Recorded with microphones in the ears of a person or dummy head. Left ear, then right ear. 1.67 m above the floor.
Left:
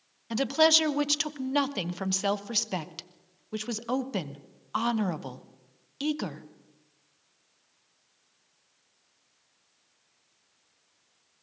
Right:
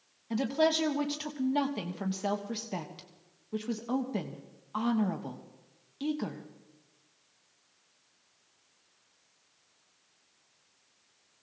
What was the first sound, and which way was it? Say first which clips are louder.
A woman speaking: left 5 dB; 45° left (ahead or behind).